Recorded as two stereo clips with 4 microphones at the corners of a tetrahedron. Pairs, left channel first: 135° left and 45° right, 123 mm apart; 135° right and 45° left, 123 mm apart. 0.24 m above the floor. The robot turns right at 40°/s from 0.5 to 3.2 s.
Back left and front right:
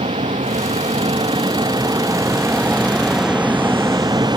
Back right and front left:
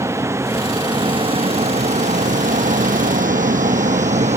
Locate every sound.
0.0 s a vehicle: 20° right; by 4.4 s 15° left